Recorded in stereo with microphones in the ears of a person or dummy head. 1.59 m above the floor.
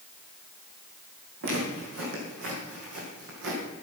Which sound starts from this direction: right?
Footsteps, at 1.4 s.